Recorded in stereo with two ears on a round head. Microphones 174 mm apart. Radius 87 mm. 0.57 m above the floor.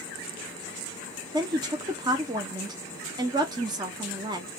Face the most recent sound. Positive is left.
turn(degrees=-20)  # may be behind; listen again after turning